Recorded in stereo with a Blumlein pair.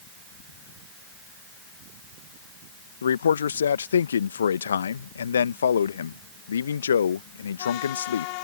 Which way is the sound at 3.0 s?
70° left.